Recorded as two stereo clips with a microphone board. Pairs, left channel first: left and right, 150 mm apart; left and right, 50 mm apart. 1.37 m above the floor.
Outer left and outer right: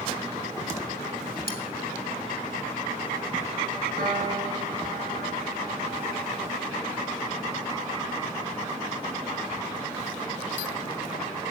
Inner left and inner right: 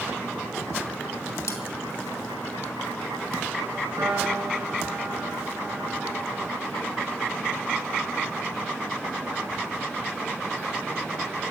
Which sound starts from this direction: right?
A piano, at 4.0 s.